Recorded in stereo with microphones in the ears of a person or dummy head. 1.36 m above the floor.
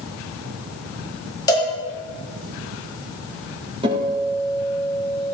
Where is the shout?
No shout in this recording.